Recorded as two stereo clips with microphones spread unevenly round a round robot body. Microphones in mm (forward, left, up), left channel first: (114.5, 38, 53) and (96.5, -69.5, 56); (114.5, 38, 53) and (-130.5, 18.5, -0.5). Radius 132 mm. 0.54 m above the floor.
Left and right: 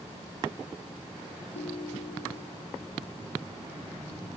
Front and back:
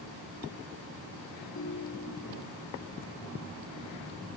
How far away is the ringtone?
About 1.9 m.